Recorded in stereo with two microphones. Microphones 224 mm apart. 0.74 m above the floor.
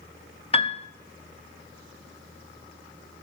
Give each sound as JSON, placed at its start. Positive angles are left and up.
{"t": 0.5, "sound": "a piano", "side_deg": 25, "distance_m": 0.6}